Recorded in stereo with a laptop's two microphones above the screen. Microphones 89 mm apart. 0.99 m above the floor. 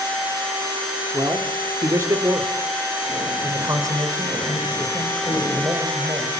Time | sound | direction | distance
1.1 | a man speaking | 35° right (ahead or behind) | 3 m